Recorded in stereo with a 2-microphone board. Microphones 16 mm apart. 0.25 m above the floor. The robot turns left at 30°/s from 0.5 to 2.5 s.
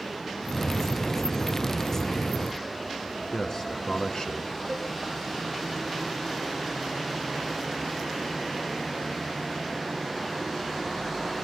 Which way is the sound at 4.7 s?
5° left (ahead or behind).